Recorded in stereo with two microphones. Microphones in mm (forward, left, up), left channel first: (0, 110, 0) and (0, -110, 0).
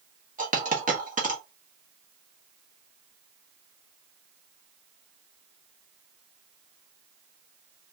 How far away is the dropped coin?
About 1.0 m.